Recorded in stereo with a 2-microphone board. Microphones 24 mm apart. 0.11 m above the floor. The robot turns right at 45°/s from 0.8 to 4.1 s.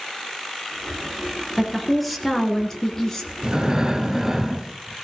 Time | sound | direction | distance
1.6 | a woman speaking | 5° right (ahead or behind) | 1.5 m
3.4 | breathing | 50° right | 1.1 m